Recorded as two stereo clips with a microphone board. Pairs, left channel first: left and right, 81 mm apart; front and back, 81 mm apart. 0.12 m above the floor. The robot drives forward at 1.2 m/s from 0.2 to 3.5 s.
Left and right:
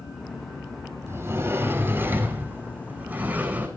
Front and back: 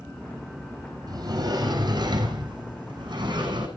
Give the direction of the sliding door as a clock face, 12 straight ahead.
5 o'clock.